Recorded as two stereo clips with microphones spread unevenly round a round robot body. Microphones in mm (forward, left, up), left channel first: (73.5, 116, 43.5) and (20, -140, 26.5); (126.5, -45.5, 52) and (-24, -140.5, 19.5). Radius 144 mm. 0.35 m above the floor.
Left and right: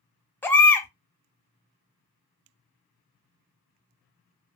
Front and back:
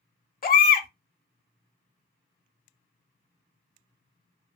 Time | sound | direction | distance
0.4 | a baby crying | 5° right | 0.8 m